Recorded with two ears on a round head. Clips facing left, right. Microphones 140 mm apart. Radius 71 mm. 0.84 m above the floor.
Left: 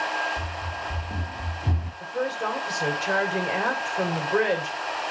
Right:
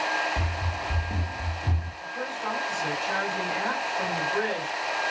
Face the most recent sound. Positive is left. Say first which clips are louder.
# left 6 dB
turn(degrees=80)